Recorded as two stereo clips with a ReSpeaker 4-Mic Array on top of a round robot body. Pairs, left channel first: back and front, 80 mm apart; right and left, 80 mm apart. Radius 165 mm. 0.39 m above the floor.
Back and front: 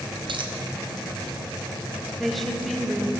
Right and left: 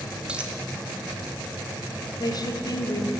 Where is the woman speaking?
95° right, 1.6 m.